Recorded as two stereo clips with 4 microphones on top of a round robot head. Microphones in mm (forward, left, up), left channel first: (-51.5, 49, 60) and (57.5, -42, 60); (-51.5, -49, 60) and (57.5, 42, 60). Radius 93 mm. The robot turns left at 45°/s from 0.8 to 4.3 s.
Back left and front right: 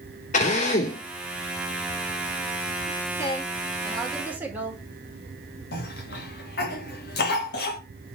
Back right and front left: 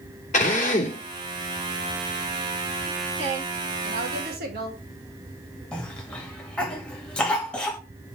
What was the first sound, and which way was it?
A drill, straight behind.